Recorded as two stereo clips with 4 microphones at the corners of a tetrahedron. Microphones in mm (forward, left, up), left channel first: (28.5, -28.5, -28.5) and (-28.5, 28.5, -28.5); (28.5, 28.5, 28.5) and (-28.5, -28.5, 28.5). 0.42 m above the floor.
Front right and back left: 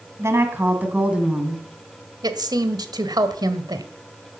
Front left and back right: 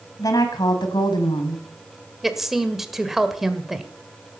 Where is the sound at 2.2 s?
140° left, 1.6 m.